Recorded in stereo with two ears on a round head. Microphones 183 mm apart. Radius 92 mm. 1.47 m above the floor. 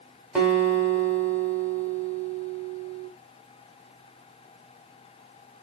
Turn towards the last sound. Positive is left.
turn(degrees=-5)  # may be behind; listen again after turning